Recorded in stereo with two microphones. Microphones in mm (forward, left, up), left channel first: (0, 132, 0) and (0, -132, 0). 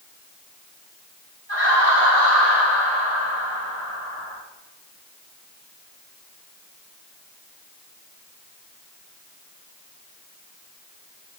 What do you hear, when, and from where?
1.5 s laughter: 55° left (ahead or behind), 4.5 m; by 4.4 s 70° left (ahead or behind), 6.5 m